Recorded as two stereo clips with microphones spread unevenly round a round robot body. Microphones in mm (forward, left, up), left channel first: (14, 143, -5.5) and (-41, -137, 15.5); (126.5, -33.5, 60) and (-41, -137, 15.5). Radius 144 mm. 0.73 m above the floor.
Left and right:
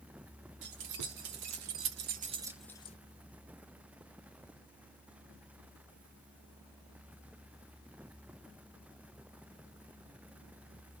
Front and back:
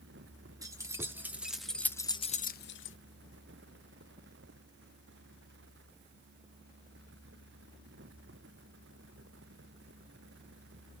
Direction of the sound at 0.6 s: 75° right.